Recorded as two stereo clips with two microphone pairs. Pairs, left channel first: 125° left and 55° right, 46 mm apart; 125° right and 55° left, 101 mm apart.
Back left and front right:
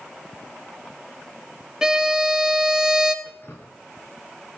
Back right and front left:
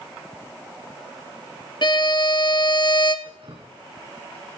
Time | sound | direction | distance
1.8 | a violin | 125° right | 0.8 m
3.2 | dripping | 85° left | 2.5 m